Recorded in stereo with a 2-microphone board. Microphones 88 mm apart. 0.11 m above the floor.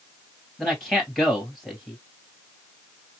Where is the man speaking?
5° left (ahead or behind), 1.9 m.